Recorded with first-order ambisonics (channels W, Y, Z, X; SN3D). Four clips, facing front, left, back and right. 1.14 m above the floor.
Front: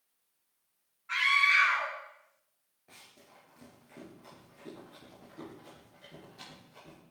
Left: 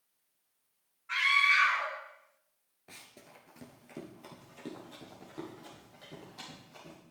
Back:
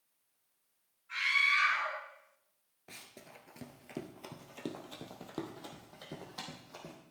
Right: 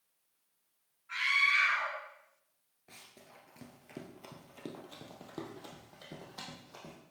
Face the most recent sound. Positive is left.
turn(degrees=-150)